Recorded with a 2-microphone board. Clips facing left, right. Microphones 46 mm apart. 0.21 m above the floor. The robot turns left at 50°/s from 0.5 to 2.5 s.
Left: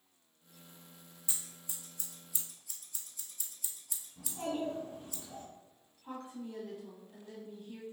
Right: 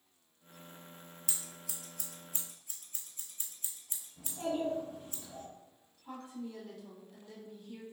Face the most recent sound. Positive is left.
turn(degrees=25)  # may be behind; listen again after turning